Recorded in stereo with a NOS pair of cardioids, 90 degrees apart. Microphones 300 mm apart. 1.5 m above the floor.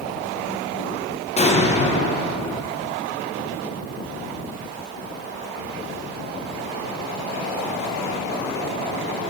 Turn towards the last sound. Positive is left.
turn(degrees=20)